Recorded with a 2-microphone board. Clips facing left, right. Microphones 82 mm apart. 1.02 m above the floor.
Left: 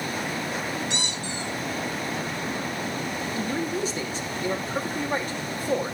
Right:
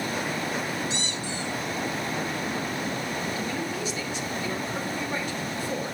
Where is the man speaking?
45° left (ahead or behind), 2.5 m.